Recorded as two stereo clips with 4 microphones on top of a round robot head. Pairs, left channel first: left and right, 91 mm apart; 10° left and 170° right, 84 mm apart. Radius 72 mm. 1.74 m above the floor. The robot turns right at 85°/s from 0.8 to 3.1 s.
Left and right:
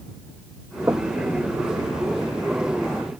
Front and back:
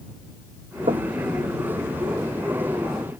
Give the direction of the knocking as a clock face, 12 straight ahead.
5 o'clock.